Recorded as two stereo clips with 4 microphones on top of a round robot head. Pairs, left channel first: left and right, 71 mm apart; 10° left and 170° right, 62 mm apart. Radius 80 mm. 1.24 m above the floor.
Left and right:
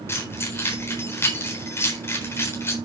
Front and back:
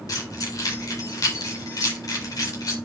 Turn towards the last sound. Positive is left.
turn(degrees=35)